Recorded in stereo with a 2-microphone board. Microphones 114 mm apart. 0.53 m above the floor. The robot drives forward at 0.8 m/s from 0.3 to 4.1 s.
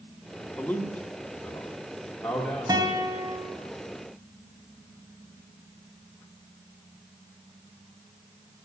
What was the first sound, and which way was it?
A man speaking, 15° left (ahead or behind).